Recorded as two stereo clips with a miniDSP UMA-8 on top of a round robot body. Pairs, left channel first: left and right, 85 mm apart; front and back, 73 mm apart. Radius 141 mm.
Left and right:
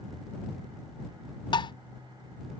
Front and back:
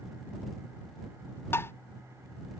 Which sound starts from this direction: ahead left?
Tapping, at 1.5 s.